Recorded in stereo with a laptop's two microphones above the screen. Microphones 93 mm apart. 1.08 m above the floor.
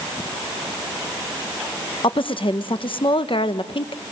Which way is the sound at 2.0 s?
60° left (ahead or behind).